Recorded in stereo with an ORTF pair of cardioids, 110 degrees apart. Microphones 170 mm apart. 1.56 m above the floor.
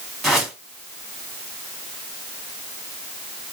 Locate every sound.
0.2 s a whoosh: straight ahead, 1.6 m